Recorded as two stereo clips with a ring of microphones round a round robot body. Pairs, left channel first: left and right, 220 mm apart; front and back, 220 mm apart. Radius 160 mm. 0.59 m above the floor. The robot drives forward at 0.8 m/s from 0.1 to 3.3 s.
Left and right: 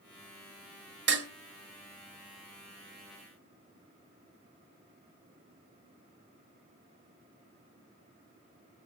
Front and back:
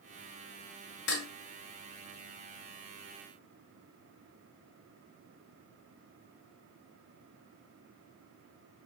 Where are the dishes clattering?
55° right, 2.5 m.